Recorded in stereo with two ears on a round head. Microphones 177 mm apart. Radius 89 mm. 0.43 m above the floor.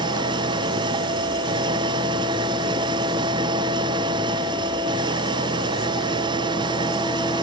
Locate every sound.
0.0 s an engine running: 25° right (ahead or behind)